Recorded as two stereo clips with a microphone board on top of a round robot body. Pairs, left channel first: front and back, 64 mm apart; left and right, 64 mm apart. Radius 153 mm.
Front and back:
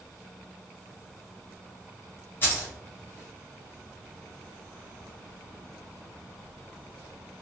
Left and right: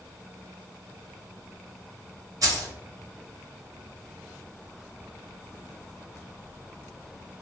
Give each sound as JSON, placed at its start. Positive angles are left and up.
{"t": 2.4, "sound": "keys jangling", "azimuth_deg": -60, "distance_m": 1.0}